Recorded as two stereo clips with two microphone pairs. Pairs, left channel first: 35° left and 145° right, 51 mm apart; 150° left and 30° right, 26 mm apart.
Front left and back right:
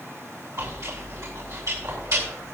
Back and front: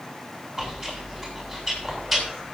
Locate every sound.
0.6 s chewing: 125° right, 7.5 m